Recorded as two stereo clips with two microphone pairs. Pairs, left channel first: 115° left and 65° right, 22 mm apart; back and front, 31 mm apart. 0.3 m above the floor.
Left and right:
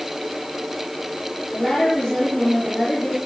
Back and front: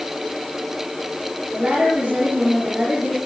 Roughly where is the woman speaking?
Ahead left.